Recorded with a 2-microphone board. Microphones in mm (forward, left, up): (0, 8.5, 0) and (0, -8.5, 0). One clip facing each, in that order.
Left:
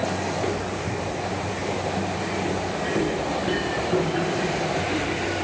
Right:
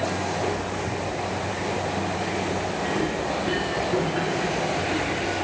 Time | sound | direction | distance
0.3 | footsteps | 35° left (ahead or behind) | 3.5 m